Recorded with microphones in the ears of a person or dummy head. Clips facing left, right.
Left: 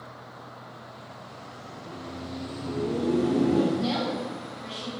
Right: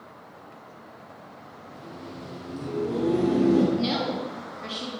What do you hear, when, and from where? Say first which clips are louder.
1.7 s laughter: left 1 dB; 20° right (ahead or behind), 1.0 m; by 3.7 s 80° right, 1.2 m
3.8 s a woman speaking: right 1 dB; 35° right (ahead or behind), 0.7 m